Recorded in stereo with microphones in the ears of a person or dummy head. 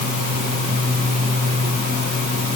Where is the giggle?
No giggle in this recording.